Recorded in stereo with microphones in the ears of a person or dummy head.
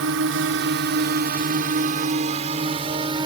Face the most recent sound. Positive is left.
turn(degrees=-25)  # may be behind; listen again after turning